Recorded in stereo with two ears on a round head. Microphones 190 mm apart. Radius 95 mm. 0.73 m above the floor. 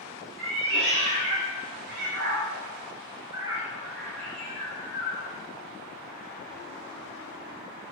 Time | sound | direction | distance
0.4 | a cat meowing | 70° right (ahead or behind) | 1.7 m